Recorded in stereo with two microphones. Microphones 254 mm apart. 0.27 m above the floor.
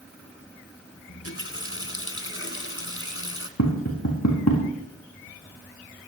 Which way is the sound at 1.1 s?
55° left (ahead or behind).